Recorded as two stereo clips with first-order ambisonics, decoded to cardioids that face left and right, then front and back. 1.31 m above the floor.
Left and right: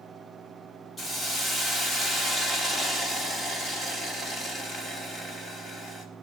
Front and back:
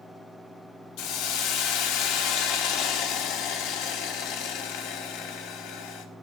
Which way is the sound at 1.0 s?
20° left.